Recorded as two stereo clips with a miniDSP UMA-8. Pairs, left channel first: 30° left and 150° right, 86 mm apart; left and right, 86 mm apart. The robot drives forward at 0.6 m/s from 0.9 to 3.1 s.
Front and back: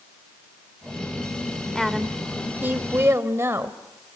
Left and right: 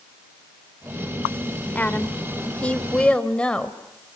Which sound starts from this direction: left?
A woman speaking, at 1.8 s.